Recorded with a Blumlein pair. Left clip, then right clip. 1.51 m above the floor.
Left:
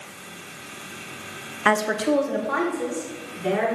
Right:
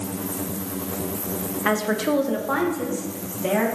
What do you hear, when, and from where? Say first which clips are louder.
1.6 s a woman speaking: left 2 dB; 15° left, 0.6 m; by 3.7 s 25° right, 3 m